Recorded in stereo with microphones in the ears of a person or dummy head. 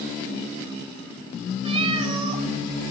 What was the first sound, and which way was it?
A cat meowing, 30° right (ahead or behind).